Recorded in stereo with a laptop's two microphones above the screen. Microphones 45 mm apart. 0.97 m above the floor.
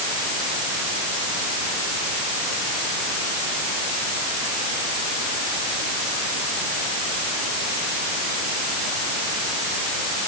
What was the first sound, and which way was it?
Only background noise.